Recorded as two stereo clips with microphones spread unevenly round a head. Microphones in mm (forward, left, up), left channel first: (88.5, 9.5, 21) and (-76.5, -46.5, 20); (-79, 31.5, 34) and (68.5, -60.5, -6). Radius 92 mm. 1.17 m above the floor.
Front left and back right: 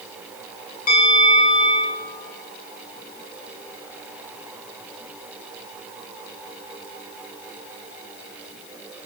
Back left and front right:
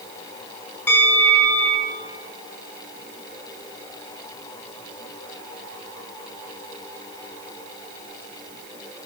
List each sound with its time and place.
0.9 s a bell: 65° left, 2 m